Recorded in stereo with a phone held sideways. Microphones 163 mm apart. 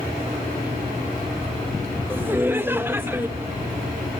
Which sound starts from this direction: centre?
Laughter, at 2.1 s.